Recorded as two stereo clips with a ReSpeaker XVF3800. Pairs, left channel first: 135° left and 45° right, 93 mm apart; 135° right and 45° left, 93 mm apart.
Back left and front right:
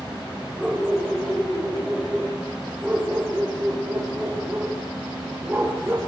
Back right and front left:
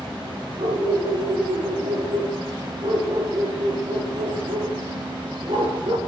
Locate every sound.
0.6 s a dog barking: 45° left, 8.5 m; by 6.0 s 25° left, 5.5 m